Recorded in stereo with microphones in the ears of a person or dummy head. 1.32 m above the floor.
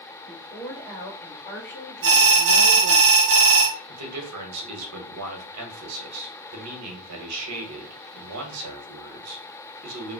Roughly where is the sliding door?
No sliding door in this recording.